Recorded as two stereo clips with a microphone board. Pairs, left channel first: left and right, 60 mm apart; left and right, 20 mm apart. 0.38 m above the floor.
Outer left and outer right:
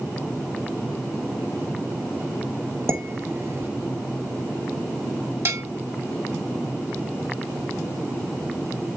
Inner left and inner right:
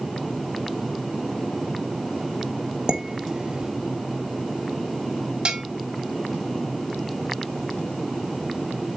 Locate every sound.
2.9 s dishes clattering: 45° right (ahead or behind), 1.3 m
5.5 s a bell: 50° right (ahead or behind), 2.5 m